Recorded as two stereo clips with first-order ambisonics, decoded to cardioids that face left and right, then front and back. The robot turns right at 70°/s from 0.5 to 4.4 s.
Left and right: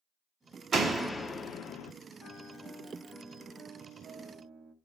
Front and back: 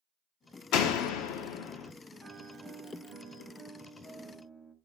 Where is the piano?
110° left, 1.0 m; by 4.8 s 95° right, 1.0 m.